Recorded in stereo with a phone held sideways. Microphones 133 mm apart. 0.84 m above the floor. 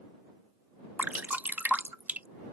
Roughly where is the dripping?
Centre.